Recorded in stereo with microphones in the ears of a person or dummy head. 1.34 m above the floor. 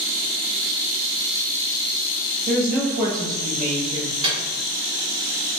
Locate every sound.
2.5 s a woman speaking: 55° right (ahead or behind), 0.6 m; by 4.1 s 35° right (ahead or behind), 1.5 m
4.2 s a microwave: 30° right (ahead or behind), 1.1 m